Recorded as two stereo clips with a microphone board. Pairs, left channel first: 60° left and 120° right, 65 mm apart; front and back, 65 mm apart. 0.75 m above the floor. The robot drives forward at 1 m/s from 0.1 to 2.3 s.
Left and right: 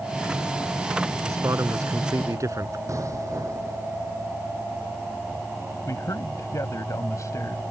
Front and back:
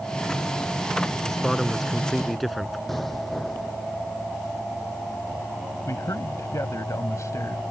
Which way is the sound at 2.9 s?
85° right.